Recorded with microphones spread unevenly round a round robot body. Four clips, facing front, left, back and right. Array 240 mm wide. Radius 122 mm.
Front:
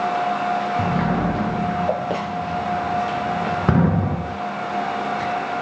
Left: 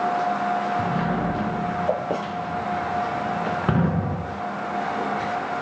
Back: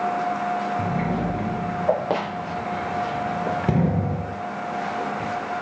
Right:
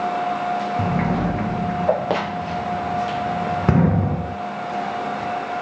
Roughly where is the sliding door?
Ahead right.